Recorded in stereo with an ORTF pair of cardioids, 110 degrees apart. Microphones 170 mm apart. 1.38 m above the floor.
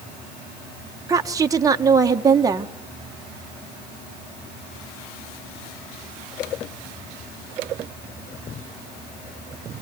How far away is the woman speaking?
About 1.6 m.